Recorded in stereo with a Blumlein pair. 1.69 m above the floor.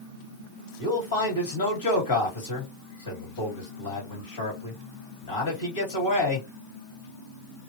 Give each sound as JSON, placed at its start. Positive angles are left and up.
{"t": 0.8, "sound": "a man speaking", "azimuth_deg": 65, "distance_m": 2.0}